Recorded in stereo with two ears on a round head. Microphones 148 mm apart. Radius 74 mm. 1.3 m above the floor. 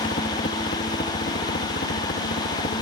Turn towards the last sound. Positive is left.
turn(degrees=55)  # may be behind; listen again after turning